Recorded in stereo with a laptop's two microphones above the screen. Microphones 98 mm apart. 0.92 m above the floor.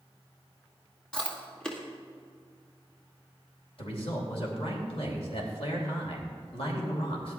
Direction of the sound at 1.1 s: 10° left (ahead or behind).